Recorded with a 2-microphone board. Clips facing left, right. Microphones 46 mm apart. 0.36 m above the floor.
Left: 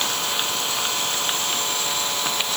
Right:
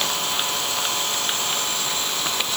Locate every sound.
Only background noise.